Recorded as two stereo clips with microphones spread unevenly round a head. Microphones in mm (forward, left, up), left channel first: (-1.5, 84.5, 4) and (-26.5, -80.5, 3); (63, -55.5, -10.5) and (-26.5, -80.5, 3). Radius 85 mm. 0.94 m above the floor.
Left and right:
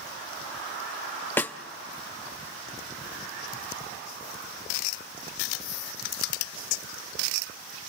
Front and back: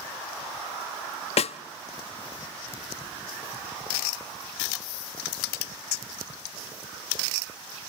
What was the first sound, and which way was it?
A snare drum, straight ahead.